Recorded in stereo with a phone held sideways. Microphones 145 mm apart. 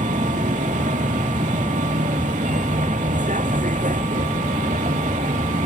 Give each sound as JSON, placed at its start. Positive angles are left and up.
{"t": 0.0, "sound": "a vehicle", "side_deg": -60}